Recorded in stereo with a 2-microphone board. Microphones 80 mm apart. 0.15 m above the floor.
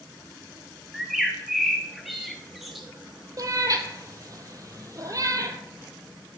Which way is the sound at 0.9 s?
Centre (ahead or behind).